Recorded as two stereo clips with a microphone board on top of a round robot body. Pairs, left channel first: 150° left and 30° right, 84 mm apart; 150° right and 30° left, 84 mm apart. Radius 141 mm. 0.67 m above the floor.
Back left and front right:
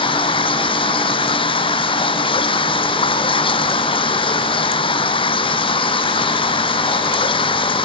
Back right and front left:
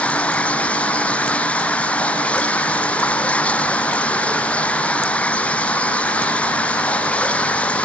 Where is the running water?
135° left.